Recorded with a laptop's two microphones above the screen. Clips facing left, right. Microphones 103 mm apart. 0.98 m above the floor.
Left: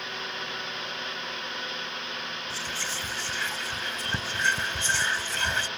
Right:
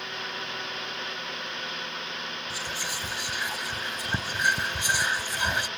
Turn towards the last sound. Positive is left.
turn(degrees=-15)  # may be behind; listen again after turning